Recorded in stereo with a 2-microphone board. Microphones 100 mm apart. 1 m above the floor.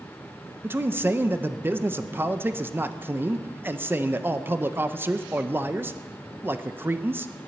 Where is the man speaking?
20° right (ahead or behind), 0.7 m.